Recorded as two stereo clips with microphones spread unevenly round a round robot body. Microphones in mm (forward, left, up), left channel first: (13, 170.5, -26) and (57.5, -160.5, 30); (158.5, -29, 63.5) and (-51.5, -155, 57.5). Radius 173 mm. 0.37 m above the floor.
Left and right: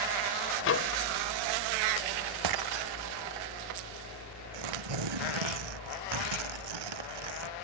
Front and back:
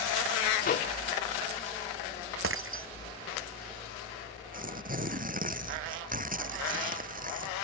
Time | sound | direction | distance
0.6 | a microwave | 75° left | ?
2.4 | breaking glass | 115° right | ?
4.5 | tearing paper | 95° right | ?